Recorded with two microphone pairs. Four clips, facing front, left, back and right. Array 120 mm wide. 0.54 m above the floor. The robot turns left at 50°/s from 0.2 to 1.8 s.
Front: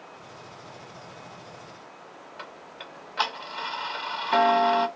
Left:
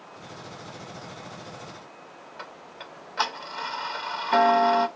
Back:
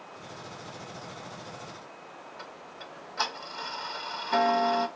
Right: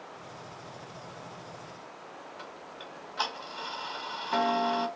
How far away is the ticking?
About 0.5 m.